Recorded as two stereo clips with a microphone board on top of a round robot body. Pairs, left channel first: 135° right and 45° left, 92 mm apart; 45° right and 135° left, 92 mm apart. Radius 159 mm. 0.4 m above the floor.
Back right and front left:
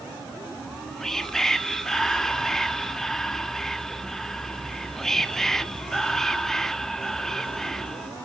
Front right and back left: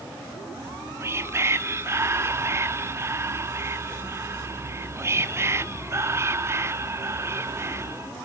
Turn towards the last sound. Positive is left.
turn(degrees=145)